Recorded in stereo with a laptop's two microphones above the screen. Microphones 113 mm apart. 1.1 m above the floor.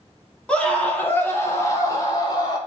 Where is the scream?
10° left (ahead or behind), 2.5 m; by 2.6 s 40° left (ahead or behind), 3 m.